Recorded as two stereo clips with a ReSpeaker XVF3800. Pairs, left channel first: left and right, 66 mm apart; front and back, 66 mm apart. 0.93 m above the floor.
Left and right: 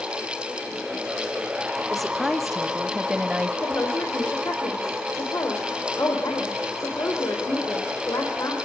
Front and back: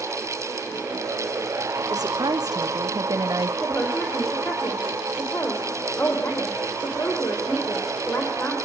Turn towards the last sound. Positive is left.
turn(degrees=55)